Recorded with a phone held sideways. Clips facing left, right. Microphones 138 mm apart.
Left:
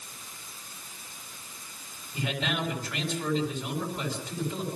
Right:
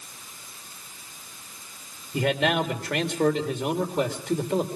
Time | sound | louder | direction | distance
2.1 | a man speaking | right 8 dB | 70° right (ahead or behind) | 4 m